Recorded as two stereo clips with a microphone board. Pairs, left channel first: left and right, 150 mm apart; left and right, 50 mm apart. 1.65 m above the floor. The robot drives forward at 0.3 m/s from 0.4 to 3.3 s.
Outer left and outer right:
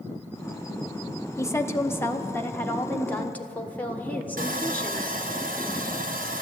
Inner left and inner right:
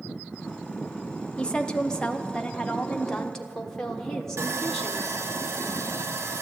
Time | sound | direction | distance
1.4 | a woman speaking | 20° left (ahead or behind) | 0.6 m
4.4 | sawing | 85° right | 1.0 m